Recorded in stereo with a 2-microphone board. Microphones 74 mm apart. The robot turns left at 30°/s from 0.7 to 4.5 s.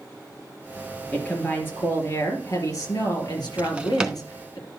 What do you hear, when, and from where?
1.1 s a woman speaking: 165° left, 4 m; by 4.6 s 65° left, 4 m
3.6 s a drawer: 20° right (ahead or behind), 0.8 m; by 4.2 s 5° right (ahead or behind), 0.8 m